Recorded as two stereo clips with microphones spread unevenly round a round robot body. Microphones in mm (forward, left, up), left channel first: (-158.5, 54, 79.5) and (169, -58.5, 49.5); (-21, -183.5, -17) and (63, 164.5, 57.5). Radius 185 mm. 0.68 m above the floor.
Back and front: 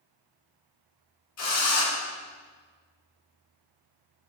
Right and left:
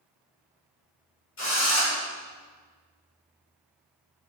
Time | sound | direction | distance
1.4 | a drill | 155° right | 2.5 m